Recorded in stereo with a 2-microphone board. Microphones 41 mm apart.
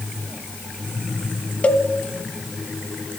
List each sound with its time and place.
1.6 s a cowbell: 40° left (ahead or behind), 1.4 m